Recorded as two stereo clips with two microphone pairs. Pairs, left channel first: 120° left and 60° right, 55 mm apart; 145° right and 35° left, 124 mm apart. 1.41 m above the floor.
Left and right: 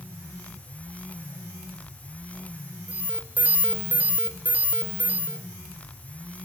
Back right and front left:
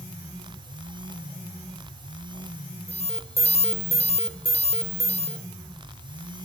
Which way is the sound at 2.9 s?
115° right.